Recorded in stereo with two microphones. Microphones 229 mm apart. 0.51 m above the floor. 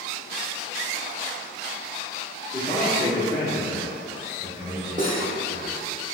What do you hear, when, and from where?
2.5 s a man speaking: 20° left (ahead or behind), 0.7 m
5.0 s cutlery clinking: 30° right (ahead or behind), 0.8 m